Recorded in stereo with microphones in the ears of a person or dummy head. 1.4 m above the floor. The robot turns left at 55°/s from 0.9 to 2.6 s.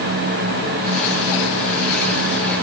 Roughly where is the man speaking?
I don't hear a man speaking.